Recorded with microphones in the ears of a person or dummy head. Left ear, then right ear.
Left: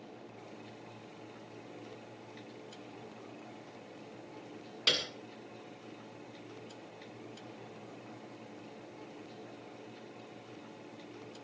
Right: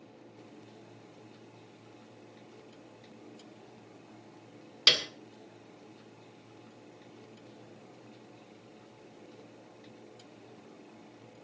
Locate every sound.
4.9 s a piano: 30° right (ahead or behind), 1.8 m